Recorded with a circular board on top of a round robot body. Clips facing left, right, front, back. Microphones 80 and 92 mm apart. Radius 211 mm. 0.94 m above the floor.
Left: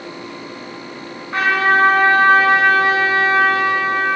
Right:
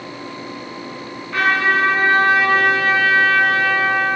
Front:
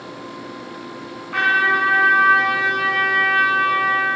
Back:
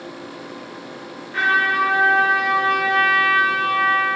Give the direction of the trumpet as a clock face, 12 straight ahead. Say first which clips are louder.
Left 2 dB, front 1 dB; 11 o'clock.